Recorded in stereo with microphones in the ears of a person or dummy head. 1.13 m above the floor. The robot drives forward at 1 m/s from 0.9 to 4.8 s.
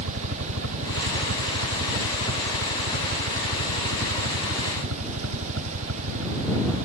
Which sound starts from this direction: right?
A helicopter, at 0.0 s.